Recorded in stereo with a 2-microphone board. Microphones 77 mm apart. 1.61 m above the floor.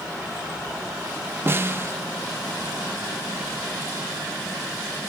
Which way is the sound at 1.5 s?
30° right (ahead or behind).